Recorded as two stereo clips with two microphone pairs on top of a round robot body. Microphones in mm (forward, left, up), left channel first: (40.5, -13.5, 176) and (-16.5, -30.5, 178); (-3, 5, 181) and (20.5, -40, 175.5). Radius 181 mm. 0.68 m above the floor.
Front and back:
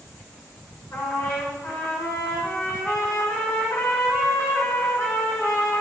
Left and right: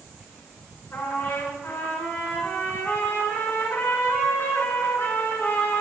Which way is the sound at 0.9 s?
65° left.